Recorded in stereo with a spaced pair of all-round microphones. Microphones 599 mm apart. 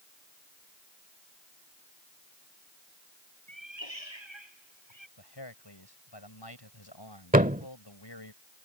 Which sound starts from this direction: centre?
A thud, at 7.3 s.